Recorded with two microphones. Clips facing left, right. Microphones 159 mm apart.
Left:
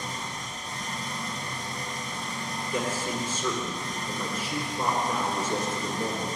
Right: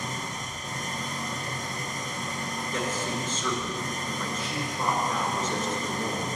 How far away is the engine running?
About 1.5 m.